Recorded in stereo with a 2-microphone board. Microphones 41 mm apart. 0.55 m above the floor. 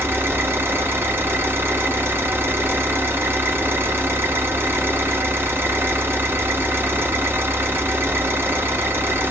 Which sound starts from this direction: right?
An engine running, at 0.0 s.